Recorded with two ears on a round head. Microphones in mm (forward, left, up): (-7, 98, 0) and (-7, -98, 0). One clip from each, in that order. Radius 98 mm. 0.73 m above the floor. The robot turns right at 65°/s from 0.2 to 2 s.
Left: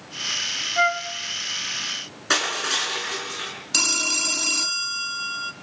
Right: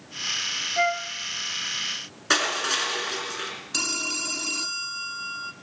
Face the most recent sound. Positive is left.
turn(degrees=30)  # may be behind; listen again after turning